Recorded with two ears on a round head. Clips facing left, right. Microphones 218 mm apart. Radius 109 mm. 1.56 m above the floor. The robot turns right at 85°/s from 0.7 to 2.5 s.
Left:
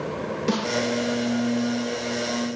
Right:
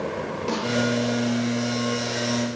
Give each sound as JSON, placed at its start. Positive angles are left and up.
{"t": 0.5, "sound": "a snare drum", "side_deg": 25, "distance_m": 10.0}